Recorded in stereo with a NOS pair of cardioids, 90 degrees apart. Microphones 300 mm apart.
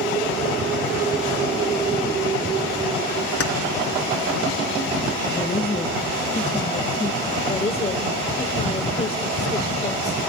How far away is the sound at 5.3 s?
About 1.7 m.